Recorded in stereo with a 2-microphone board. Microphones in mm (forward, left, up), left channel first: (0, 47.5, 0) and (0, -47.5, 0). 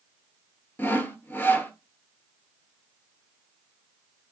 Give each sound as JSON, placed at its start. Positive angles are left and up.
{"t": 0.8, "sound": "sawing", "side_deg": 20, "distance_m": 0.6}